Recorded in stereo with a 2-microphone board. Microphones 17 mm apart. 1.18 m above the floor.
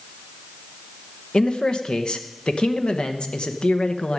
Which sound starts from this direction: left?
A man speaking, at 1.3 s.